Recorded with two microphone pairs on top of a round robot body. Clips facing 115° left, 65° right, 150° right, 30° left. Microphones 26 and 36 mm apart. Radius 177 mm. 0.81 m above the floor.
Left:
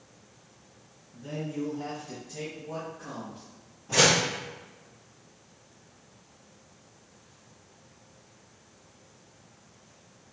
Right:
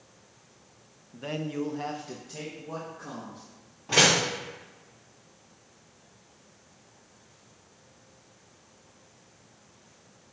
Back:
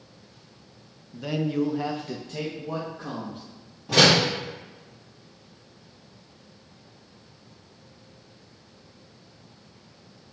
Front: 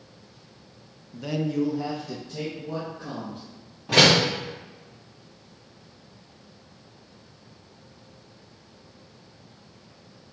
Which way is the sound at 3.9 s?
15° right.